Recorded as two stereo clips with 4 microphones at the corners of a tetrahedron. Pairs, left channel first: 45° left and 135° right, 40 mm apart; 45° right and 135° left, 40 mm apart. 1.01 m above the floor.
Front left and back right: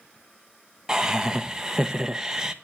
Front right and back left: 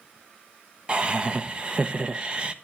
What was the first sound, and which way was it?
Laughter, 165° left.